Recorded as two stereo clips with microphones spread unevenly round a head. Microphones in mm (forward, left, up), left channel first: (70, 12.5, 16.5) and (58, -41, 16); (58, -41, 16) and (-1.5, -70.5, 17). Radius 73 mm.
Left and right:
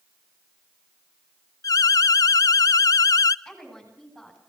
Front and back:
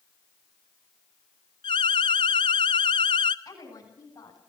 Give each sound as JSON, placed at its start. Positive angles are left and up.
{"t": 1.6, "sound": "an alarm", "azimuth_deg": 70, "distance_m": 0.6}
{"t": 3.5, "sound": "a woman speaking", "azimuth_deg": -10, "distance_m": 9.5}